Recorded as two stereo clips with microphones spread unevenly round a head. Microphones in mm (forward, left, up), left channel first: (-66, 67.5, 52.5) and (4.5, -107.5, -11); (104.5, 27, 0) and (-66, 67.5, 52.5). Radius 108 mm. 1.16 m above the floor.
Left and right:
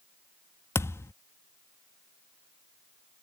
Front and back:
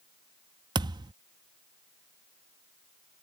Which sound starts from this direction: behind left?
A thud, at 0.8 s.